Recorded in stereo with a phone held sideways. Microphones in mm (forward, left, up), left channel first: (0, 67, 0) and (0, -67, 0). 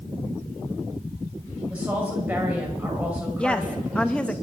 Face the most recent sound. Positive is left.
turn(degrees=10)  # may be behind; listen again after turning